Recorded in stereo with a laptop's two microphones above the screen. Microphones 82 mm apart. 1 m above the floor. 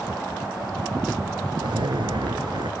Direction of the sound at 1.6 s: 75° right (ahead or behind).